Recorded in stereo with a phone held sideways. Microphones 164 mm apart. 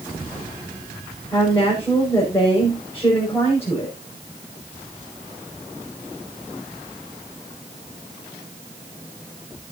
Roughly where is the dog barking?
I don't hear a dog barking.